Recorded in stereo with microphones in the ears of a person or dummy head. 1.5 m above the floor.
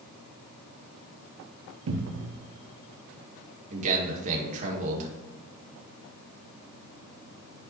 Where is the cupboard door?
65° right (ahead or behind), 0.7 m.